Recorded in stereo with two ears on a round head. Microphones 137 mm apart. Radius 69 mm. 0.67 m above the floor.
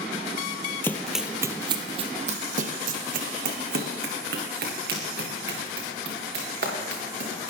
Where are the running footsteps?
15° left (ahead or behind), 0.7 m; by 7.5 s 75° right (ahead or behind), 4.5 m.